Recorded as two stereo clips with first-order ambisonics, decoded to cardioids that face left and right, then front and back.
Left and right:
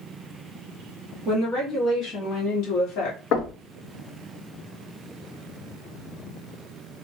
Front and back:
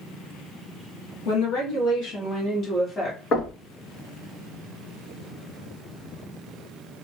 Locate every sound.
1.2 s a woman speaking: 20° left, 1.6 m; by 3.2 s 85° left, 1.2 m
3.3 s knocking: 55° left, 0.9 m